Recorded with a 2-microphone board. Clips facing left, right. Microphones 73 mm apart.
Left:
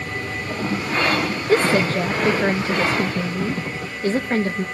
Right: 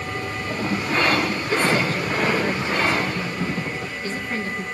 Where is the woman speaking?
50° left (ahead or behind), 0.8 m.